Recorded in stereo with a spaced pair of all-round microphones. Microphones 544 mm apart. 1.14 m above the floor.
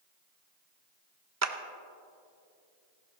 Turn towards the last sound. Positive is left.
turn(degrees=-30)  # may be behind; listen again after turning